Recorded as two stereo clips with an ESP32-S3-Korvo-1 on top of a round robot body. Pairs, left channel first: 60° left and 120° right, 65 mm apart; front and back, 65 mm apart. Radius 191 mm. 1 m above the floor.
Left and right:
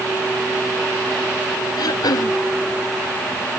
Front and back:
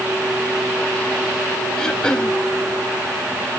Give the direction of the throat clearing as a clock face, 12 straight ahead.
9 o'clock.